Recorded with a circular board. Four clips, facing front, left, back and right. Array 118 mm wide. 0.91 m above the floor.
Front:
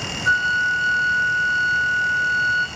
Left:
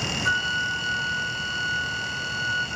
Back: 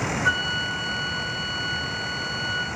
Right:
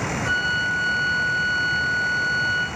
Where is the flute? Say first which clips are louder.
Right 1 dB, front 6 dB; 165° left, 8 m.